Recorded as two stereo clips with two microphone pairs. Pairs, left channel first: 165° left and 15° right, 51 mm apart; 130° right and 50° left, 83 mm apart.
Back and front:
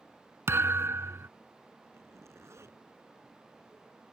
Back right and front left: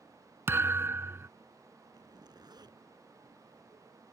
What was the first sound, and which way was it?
A thud, 5° right.